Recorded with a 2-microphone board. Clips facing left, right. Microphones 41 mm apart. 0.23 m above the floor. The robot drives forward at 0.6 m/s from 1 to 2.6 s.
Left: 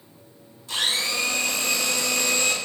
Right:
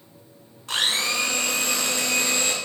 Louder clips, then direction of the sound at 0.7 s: Right 2 dB; 60° right (ahead or behind).